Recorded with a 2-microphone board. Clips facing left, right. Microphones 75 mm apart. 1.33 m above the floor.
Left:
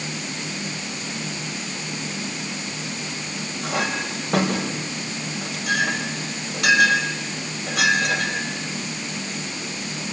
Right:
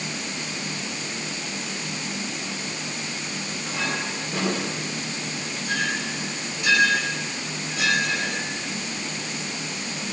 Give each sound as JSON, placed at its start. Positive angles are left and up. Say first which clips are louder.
{"t": 3.6, "sound": "a clink", "louder": "left 4 dB", "side_deg": 75, "distance_m": 5.5}